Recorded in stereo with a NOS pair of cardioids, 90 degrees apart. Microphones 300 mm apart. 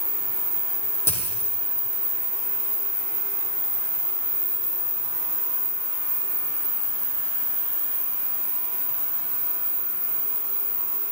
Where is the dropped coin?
10° left, 4 m.